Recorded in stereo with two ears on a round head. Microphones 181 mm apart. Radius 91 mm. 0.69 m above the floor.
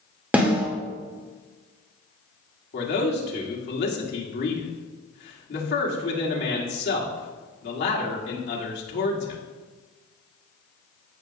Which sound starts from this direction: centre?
A snare drum, at 0.3 s.